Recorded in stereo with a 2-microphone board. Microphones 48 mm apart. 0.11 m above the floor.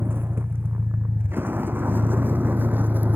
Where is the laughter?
No laughter in this recording.